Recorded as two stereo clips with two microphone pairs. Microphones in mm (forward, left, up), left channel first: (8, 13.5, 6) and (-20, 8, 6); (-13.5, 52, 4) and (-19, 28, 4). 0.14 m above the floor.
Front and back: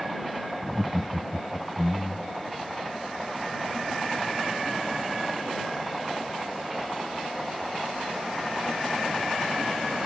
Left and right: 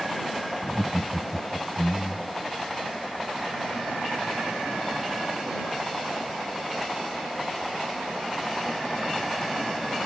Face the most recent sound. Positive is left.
turn(degrees=70)